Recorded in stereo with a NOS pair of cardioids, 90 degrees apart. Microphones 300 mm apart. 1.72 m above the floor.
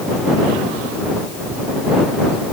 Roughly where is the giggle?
I don't hear a giggle.